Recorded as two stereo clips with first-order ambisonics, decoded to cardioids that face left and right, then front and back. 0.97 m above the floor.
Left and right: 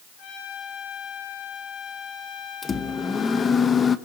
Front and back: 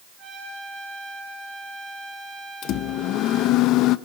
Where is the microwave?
25° left, 0.9 m.